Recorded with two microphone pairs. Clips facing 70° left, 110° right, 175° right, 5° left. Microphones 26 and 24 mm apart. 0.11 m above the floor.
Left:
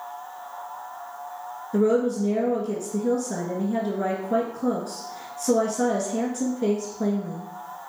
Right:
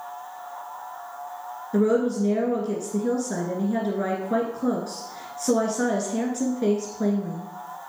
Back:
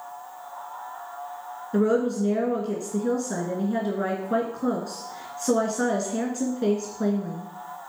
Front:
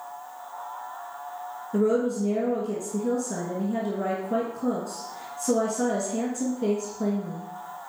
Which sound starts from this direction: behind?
A woman speaking, at 1.7 s.